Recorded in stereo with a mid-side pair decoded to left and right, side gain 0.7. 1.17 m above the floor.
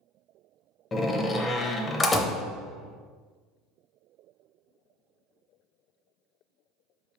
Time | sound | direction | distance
0.9 | a door slam | 20° left | 0.6 m